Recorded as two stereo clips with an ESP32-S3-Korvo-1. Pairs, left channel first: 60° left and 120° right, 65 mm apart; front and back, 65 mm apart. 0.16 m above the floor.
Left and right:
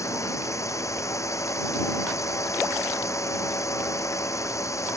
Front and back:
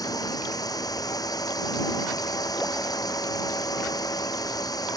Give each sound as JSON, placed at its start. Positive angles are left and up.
{"t": 0.0, "sound": "a drone", "azimuth_deg": 20}